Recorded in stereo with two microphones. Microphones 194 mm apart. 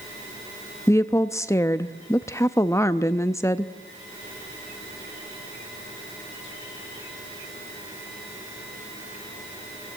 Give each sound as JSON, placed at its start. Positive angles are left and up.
{"t": 0.9, "sound": "a woman speaking", "side_deg": 15, "distance_m": 0.5}